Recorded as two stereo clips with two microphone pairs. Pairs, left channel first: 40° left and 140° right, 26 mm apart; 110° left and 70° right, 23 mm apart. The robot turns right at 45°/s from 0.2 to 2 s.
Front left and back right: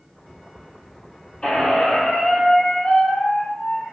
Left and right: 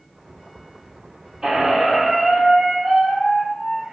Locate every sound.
1.4 s a squeak: 15° right, 1.0 m; by 3.9 s 15° left, 1.0 m